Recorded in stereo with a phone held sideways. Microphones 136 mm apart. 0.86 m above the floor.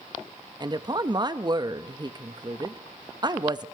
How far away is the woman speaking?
About 0.6 m.